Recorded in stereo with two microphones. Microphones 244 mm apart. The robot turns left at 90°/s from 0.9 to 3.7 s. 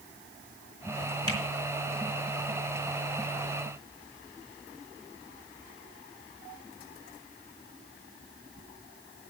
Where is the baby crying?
No baby crying in this recording.